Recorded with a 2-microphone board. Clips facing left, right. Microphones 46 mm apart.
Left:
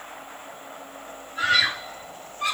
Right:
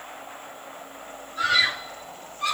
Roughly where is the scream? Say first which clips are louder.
Even; left.